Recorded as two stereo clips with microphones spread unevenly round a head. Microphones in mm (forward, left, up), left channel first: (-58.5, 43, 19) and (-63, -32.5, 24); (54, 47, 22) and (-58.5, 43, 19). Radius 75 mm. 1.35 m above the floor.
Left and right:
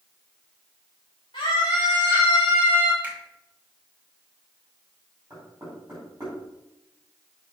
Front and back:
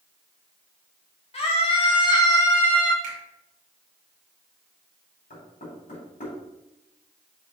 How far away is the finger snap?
About 2.5 m.